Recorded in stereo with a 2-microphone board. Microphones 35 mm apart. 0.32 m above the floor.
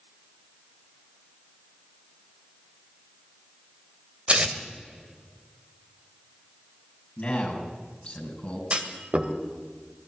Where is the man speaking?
35° left (ahead or behind), 5 m.